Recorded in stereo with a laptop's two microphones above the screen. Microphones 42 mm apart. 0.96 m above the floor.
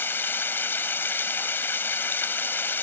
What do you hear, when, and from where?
0.0 s running water: 55° left (ahead or behind)